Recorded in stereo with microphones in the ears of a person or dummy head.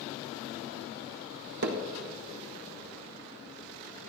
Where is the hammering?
55° right (ahead or behind), 1.1 m.